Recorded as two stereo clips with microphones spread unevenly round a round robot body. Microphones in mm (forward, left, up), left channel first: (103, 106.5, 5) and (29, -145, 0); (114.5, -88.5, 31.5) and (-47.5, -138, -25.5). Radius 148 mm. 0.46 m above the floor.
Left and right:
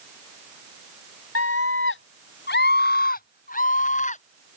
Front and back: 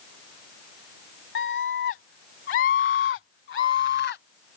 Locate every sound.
1.4 s a scream: 45° left; by 4.2 s 10° left